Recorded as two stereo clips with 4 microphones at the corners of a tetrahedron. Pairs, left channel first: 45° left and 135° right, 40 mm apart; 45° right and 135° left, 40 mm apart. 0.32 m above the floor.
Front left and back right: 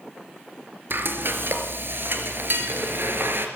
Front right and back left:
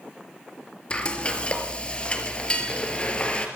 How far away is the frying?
About 3 m.